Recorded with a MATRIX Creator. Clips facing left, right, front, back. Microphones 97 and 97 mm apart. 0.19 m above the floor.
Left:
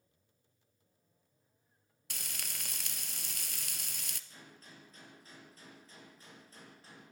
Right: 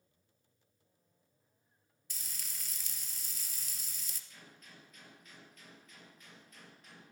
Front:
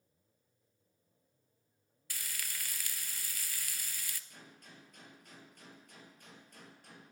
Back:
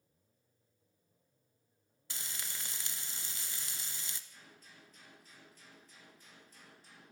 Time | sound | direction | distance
2.1 | frying | 115° left | 0.9 m
4.3 | a gunshot | 30° left | 4 m